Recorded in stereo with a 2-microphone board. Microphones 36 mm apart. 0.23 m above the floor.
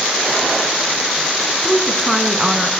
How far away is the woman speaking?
About 3 m.